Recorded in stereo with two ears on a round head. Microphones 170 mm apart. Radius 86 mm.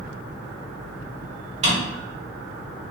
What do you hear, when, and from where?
1.6 s a drawer: 40° right (ahead or behind), 1.2 m